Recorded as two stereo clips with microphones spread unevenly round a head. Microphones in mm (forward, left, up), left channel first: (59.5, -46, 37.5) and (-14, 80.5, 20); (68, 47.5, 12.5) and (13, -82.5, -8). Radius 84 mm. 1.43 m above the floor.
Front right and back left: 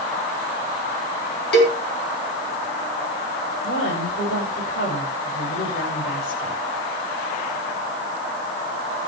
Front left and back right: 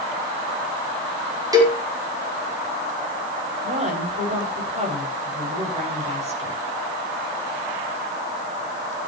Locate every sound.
1.5 s a cowbell: 50° right, 4 m
3.6 s a woman speaking: 70° right, 6.5 m